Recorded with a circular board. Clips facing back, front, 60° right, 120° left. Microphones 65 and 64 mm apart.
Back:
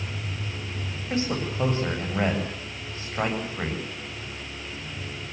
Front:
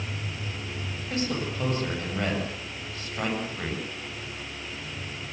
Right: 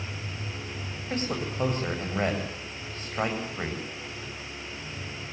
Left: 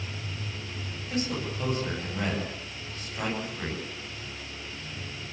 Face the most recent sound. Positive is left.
turn(degrees=-115)